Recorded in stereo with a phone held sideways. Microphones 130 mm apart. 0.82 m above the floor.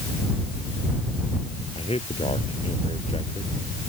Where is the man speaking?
50° left (ahead or behind).